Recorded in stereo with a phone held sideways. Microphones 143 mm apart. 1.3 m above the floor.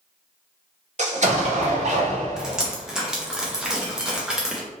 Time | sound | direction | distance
1.0 | an explosion | 55° right (ahead or behind) | 0.9 m
2.4 | dripping | 5° right (ahead or behind) | 0.8 m